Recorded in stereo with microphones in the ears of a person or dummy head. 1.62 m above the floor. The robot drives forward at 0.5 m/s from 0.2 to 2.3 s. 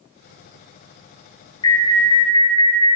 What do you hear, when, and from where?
1.6 s an alarm: 30° left (ahead or behind), 1.5 m; by 3.0 s 25° left (ahead or behind), 1.8 m